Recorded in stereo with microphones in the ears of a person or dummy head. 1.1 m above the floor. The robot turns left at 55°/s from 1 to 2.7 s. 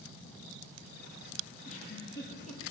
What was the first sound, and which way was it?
A giggle, 50° left (ahead or behind).